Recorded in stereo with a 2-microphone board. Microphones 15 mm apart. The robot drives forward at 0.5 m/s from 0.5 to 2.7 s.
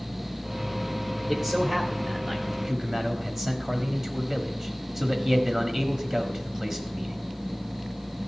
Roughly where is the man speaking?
Right.